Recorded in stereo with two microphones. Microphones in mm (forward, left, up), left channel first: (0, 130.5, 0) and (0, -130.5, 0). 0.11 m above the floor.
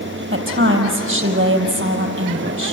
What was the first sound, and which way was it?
A woman speaking, 50° right (ahead or behind).